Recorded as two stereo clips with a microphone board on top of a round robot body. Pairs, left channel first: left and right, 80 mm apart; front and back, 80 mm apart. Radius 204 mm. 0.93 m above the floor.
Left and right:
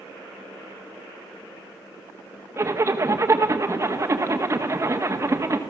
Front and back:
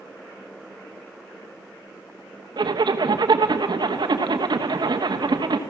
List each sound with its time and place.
2.6 s a zipper: 150° right, 1.4 m